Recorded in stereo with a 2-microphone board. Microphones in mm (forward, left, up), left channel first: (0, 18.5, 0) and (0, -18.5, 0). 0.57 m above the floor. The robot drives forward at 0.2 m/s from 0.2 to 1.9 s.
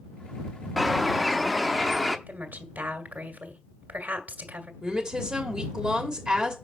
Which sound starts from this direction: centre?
A bird, at 0.8 s.